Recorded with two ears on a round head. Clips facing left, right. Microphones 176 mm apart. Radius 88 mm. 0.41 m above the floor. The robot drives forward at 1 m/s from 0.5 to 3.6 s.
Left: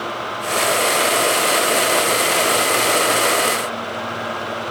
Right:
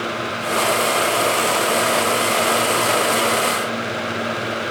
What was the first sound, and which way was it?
Only background noise.